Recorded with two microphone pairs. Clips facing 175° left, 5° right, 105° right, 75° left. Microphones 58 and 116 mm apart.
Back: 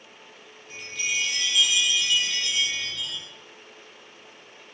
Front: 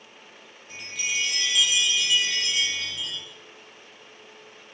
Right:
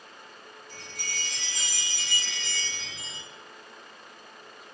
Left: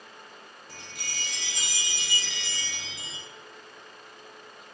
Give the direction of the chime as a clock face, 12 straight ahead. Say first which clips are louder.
Back 1 dB, right 2 dB; 9 o'clock.